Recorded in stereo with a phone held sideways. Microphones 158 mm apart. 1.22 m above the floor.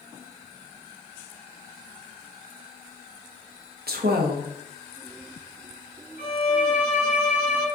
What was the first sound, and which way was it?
A woman speaking, 75° right (ahead or behind).